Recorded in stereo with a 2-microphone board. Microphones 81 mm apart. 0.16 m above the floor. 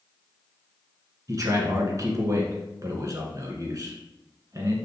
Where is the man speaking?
45° right (ahead or behind), 2 m.